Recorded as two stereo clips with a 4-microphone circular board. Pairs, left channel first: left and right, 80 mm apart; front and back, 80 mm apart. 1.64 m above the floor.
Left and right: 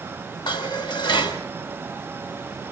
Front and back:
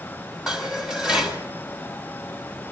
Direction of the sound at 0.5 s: 100° left.